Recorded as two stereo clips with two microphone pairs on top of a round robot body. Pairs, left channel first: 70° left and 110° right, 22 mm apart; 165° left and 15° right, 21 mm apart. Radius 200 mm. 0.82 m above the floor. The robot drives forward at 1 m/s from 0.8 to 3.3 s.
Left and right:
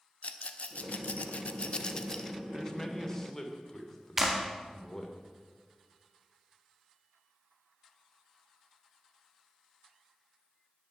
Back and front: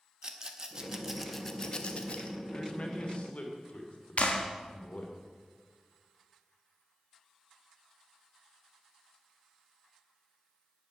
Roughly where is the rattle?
Ahead left.